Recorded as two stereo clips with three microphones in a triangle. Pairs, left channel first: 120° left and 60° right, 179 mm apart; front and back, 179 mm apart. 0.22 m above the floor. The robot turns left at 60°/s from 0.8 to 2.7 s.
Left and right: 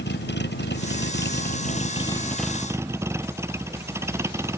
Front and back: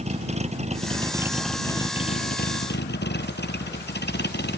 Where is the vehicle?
130° left; by 4.6 s 15° left.